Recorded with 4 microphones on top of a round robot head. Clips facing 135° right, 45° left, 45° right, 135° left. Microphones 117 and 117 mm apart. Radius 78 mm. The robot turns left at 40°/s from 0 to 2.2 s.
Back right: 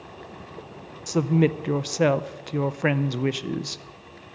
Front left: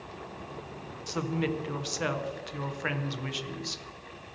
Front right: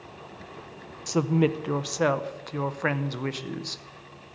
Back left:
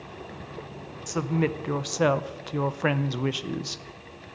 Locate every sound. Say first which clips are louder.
1.1 s a woman speaking: back right 10 dB, front right 3 dB; 100° right, 0.7 m; by 3.8 s 145° right, 0.7 m